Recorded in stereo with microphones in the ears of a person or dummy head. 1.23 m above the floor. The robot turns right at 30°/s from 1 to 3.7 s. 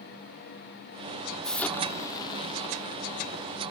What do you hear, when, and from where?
1.4 s an explosion: 5° left, 1.2 m; by 3.7 s 70° left, 1.2 m